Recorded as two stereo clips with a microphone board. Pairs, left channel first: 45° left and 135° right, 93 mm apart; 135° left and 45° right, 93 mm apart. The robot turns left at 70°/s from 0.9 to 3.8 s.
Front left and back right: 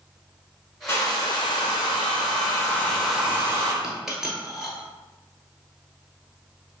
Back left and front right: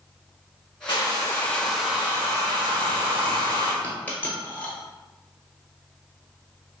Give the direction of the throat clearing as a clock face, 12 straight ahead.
No throat clearing in this recording.